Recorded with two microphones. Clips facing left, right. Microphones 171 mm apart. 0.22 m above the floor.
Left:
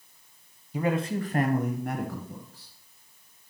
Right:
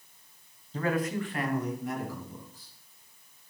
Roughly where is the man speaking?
Centre.